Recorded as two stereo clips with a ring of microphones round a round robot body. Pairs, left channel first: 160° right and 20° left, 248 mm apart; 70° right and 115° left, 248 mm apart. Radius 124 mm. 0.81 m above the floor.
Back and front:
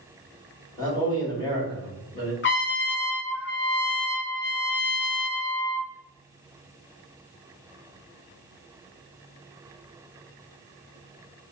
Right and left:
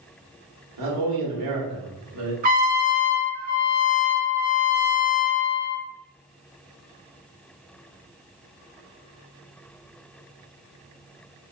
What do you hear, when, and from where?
0.8 s a man speaking: 130° left, 1.7 m
2.4 s a trumpet: 165° left, 0.8 m